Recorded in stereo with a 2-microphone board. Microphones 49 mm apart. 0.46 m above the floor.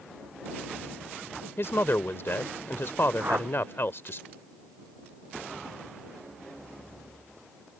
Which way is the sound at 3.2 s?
45° right (ahead or behind).